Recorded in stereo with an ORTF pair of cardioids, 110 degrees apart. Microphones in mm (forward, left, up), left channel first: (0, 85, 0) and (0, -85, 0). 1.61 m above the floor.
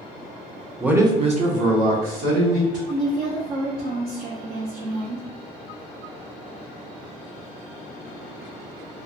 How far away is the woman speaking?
About 0.6 m.